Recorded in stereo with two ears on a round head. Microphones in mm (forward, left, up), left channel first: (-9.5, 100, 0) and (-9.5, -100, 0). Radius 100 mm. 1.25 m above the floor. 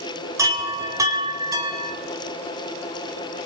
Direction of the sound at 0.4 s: 15° right (ahead or behind).